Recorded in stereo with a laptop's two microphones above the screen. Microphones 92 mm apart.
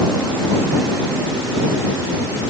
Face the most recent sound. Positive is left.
No sound to turn to.